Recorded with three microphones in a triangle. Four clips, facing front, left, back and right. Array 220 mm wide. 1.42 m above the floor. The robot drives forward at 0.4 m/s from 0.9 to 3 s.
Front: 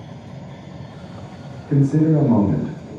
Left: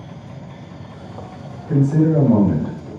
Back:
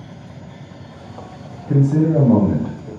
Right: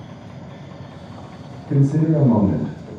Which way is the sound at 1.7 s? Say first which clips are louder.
Left 2 dB, even; 170° left.